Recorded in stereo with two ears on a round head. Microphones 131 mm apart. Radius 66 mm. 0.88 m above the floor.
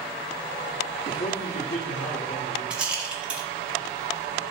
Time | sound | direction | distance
1.1 | a man speaking | 75° left (ahead or behind) | 1.1 m
2.7 | a rattle | 5° right (ahead or behind) | 1.3 m